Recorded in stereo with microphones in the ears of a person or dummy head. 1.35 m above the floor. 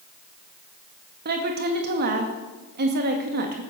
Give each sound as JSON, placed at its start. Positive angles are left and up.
{"t": 1.2, "sound": "a woman speaking", "side_deg": -50, "distance_m": 1.9}